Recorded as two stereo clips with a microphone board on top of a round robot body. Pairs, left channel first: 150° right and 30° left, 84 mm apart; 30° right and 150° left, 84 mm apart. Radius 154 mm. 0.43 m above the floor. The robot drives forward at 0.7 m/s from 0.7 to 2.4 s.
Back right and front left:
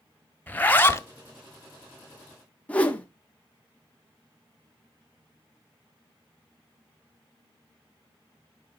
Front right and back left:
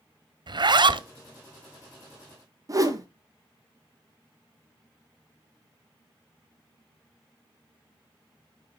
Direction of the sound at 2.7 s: 145° left.